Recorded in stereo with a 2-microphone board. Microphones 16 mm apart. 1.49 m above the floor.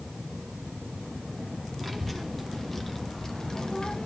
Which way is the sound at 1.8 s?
10° left (ahead or behind).